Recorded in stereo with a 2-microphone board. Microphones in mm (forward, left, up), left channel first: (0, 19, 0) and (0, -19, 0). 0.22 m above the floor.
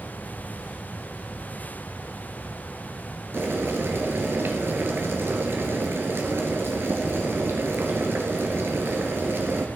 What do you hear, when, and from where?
3.3 s boiling: 75° right (ahead or behind), 1.9 m